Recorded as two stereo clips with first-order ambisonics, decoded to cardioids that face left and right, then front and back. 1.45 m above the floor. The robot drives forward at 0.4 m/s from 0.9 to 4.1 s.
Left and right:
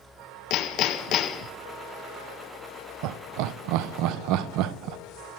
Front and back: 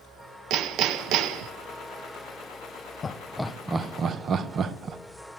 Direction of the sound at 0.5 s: 135° left.